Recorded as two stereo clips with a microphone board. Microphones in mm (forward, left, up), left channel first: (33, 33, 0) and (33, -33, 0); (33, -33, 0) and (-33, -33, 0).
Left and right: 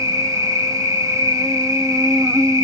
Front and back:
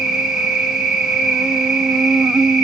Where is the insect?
100° right, 0.9 m.